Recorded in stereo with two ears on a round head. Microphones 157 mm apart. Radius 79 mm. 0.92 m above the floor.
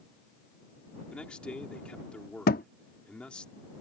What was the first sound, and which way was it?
A man speaking, 5° left (ahead or behind).